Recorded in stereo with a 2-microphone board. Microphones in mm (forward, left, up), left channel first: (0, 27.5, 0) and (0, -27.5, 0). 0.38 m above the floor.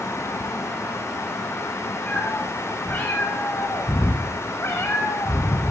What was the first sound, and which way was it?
A cat meowing, 30° left (ahead or behind).